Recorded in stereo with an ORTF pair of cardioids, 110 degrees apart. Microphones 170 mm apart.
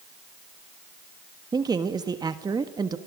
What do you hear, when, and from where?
1.5 s a man speaking: 25° right, 1.4 m